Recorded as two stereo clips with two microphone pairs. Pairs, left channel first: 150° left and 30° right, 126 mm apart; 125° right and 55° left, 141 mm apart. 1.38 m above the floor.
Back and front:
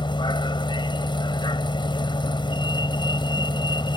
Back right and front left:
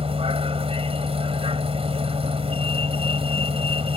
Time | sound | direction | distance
0.0 | a vehicle | 100° left | ?